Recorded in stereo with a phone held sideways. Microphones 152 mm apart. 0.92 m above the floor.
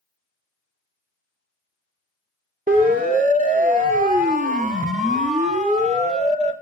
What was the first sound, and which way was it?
A siren, 75° right (ahead or behind).